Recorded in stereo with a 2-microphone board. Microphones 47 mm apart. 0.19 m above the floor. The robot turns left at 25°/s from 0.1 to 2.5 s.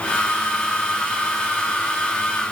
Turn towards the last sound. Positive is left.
No sound to turn to.